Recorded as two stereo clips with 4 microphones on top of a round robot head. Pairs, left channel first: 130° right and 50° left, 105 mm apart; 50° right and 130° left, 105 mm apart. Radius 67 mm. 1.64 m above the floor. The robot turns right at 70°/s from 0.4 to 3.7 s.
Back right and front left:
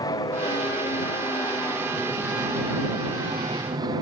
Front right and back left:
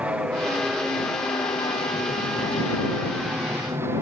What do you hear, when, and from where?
0.0 s an aircraft: 160° right; by 4.0 s 75° left